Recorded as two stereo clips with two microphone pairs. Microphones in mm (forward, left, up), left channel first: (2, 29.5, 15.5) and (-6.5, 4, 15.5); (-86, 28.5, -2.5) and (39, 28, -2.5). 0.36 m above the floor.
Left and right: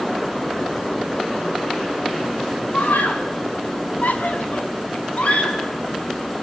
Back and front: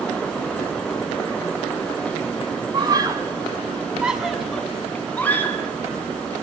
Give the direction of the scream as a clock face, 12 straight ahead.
10 o'clock.